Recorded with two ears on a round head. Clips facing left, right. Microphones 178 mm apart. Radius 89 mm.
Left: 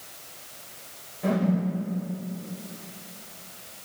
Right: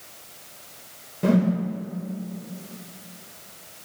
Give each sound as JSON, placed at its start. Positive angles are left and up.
{"t": 1.2, "sound": "a whoosh", "side_deg": -55, "distance_m": 1.5}